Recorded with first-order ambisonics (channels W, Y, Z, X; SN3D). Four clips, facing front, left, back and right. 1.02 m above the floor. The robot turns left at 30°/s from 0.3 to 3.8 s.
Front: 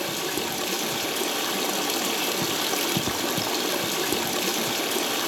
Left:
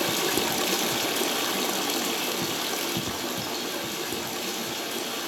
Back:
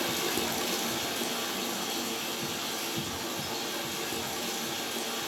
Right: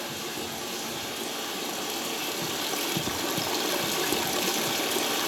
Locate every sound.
0.0 s running water: 80° left, 0.7 m; by 5.3 s 25° right, 0.7 m